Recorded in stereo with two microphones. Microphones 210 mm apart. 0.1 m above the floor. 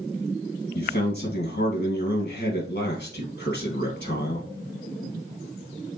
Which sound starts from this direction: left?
A man speaking, at 0.8 s.